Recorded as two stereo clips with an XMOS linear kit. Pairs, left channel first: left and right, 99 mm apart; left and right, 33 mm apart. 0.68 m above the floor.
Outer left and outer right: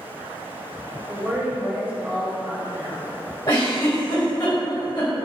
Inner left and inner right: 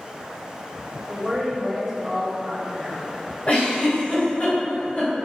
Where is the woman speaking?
15° right (ahead or behind), 0.6 m.